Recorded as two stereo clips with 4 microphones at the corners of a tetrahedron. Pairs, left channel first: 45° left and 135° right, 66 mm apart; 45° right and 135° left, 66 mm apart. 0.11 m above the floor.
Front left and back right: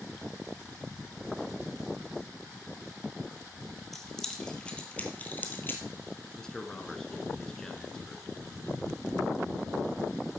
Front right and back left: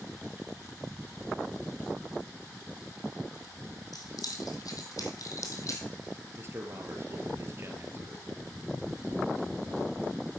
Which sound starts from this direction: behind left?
A man speaking, at 6.4 s.